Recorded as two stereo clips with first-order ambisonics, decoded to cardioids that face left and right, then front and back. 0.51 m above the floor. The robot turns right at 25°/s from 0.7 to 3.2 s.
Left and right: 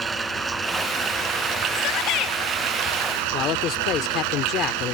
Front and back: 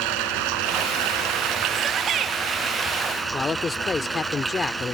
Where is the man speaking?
70° left.